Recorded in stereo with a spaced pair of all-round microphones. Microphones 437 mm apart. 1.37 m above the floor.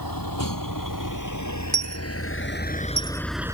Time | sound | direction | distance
0.0 | a vehicle | 50° left (ahead or behind) | ?
1.7 | a dropped coin | 25° right (ahead or behind) | ?